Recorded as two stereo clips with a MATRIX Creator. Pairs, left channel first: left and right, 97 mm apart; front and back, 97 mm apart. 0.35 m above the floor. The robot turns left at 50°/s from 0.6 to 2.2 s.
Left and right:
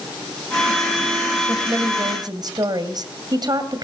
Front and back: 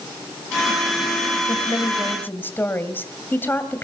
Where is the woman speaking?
25° right, 2 m; by 3.9 s 65° right, 2 m.